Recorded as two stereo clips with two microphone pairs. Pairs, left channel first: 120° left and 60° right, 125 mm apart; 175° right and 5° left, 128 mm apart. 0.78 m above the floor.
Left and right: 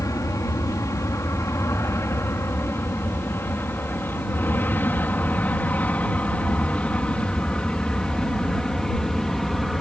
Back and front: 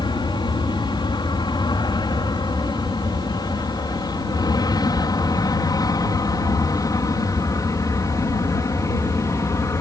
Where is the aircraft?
165° left; by 9.8 s 155° right.